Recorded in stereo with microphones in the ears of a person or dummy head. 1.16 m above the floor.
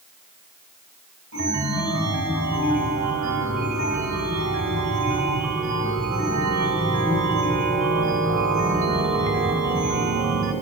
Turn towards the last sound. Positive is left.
turn(degrees=-45)  # may be behind; listen again after turning